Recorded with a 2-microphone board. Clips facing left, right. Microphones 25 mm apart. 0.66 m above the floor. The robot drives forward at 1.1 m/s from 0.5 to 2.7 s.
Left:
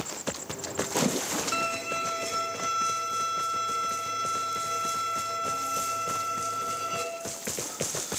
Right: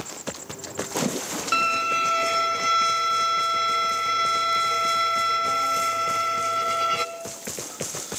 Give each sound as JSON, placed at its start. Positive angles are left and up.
{"t": 1.5, "sound": "a violin", "side_deg": -45, "distance_m": 1.7}